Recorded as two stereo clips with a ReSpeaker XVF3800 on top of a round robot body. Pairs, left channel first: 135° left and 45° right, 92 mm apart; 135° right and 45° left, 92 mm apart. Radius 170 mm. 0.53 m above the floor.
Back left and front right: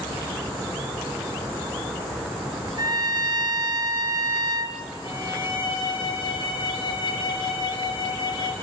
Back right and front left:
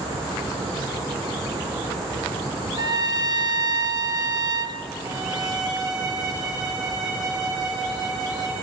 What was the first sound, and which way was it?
A trumpet, straight ahead.